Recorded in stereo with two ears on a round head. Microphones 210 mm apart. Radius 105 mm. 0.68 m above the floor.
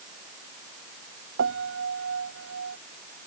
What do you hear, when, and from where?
1.4 s a piano: 55° right (ahead or behind)